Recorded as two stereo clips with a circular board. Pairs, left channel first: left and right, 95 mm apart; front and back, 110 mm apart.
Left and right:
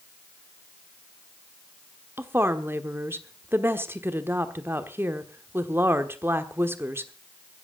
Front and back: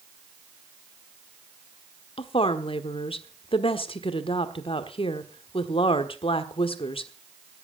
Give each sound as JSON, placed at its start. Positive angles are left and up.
{"t": 2.2, "sound": "a woman speaking", "azimuth_deg": -25, "distance_m": 1.2}